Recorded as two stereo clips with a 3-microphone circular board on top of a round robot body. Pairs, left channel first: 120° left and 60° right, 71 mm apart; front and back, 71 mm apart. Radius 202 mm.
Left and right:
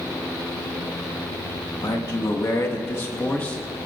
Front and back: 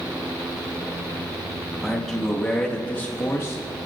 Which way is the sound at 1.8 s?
90° left.